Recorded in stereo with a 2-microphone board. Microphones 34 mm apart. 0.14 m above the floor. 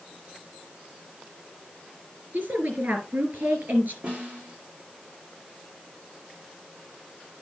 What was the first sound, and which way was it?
A woman speaking, 55° right (ahead or behind).